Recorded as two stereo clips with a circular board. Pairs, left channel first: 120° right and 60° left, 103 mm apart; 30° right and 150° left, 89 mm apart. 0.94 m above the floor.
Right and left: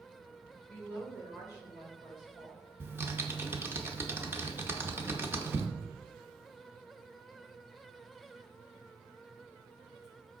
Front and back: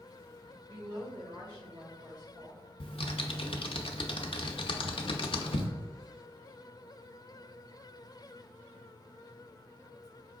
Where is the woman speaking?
170° left, 1.4 m; by 2.6 s 170° right, 2 m.